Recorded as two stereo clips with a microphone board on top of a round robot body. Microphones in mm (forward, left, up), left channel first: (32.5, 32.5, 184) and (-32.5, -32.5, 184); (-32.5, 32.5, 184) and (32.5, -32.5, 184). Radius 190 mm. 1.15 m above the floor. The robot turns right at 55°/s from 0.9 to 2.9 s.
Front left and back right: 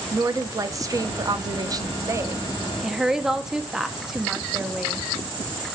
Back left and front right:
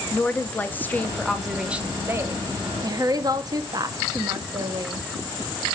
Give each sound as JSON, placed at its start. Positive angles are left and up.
{"t": 0.1, "sound": "a woman speaking", "azimuth_deg": -165, "distance_m": 0.6}